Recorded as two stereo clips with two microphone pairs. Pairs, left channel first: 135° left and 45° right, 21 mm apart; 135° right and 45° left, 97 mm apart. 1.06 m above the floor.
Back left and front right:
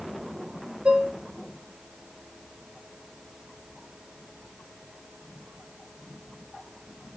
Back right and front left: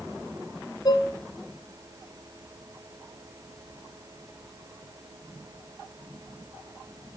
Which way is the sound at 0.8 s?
80° right.